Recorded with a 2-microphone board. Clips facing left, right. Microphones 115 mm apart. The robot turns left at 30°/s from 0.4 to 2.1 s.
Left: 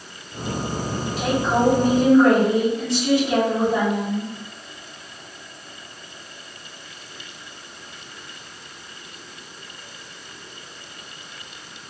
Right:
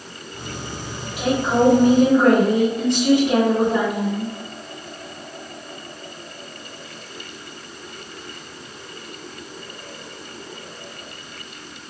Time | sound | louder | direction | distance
1.2 | a woman speaking | right 3 dB | 15° right (ahead or behind) | 1.0 m